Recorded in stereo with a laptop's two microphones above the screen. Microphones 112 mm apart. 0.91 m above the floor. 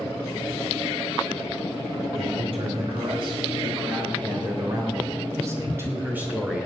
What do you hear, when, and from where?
2.1 s a man speaking: 60° right (ahead or behind), 5.5 m; by 6.7 s 5° right (ahead or behind), 3 m